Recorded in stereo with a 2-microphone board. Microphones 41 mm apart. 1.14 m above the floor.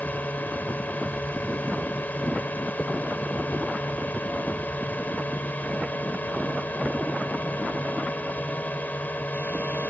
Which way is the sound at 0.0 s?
45° left (ahead or behind).